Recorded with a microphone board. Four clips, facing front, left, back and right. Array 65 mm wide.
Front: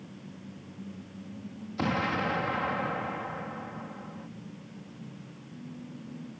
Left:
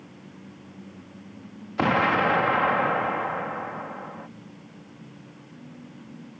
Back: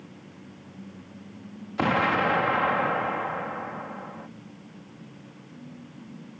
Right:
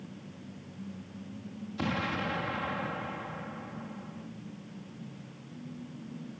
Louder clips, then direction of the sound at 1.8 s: Left 12 dB, back 6 dB; 115° left.